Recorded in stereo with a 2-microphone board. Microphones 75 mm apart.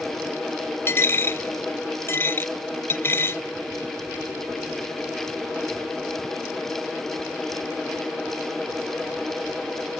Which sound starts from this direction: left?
A dropped coin, at 0.9 s.